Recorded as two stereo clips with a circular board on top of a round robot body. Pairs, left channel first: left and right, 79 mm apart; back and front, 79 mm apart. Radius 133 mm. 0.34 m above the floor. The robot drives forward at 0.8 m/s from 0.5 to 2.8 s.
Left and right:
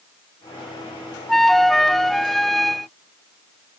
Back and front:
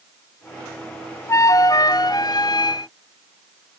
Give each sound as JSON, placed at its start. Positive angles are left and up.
{"t": 1.3, "sound": "a flute", "azimuth_deg": 175}